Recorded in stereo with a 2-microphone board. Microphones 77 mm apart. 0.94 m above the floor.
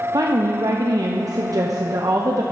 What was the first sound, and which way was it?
A woman speaking, 50° right (ahead or behind).